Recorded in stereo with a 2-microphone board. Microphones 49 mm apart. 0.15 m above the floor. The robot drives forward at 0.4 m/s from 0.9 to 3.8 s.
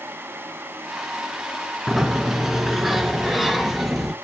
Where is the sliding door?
5° right (ahead or behind), 0.9 m.